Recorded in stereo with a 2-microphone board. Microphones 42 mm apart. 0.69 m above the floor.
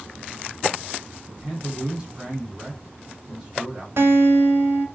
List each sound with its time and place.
1.3 s a man speaking: 20° right (ahead or behind), 1.8 m
4.0 s a guitar: 75° right (ahead or behind), 0.9 m